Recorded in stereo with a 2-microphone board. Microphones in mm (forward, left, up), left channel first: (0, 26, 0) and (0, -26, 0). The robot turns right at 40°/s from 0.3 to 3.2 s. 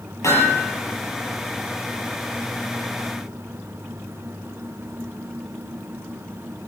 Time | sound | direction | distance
0.2 | hammering | 85° left | 8 m